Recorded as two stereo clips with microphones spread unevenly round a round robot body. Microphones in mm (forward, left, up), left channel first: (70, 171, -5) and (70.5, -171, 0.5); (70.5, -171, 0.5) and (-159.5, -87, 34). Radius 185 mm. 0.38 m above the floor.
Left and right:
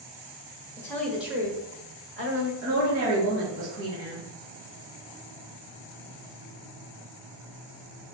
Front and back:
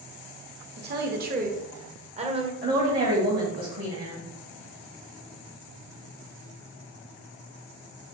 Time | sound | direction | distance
0.8 | a woman speaking | 160° left | 1.2 m
2.6 | a woman speaking | 150° right | 2 m